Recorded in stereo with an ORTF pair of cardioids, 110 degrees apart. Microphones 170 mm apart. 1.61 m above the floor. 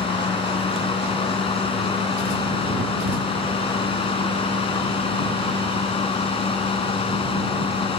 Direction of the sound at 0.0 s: 30° left.